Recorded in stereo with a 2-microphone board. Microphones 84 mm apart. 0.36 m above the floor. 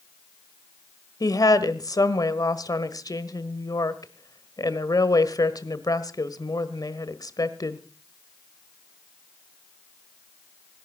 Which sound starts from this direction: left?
A woman speaking, at 1.2 s.